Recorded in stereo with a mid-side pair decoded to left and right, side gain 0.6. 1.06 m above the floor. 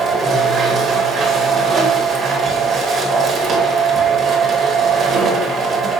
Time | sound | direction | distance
0.0 | a machine running | 35° right | 0.9 m